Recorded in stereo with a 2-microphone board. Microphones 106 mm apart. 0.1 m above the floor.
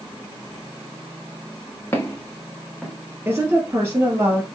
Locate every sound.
1.9 s footsteps: 25° left (ahead or behind), 2 m; by 2.9 s centre (ahead or behind), 2 m
3.2 s a woman speaking: 25° right (ahead or behind), 2.5 m